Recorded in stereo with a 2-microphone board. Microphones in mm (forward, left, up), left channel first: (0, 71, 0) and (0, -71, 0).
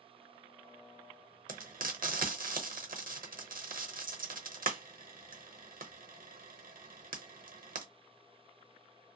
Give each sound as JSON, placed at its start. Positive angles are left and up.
{"t": 1.5, "sound": "frying", "side_deg": -80, "distance_m": 0.8}